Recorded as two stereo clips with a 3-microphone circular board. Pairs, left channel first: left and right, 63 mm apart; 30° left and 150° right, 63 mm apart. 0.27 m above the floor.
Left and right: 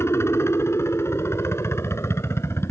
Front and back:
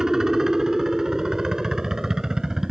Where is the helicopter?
130° left.